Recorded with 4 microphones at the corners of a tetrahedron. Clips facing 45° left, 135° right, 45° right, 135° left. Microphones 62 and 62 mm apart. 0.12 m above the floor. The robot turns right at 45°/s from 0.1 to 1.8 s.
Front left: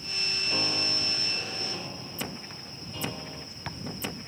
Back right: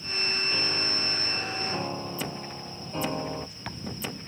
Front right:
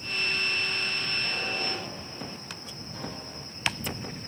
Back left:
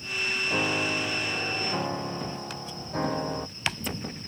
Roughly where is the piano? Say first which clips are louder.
Back right 1 dB, back left 4 dB; behind left.